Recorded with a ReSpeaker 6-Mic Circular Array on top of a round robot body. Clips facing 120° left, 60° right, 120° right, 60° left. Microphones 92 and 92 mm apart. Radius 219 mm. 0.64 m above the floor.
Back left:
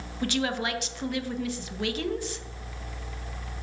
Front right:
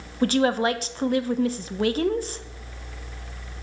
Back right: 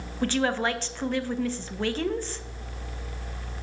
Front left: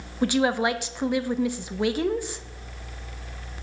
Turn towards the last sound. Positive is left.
turn(degrees=-15)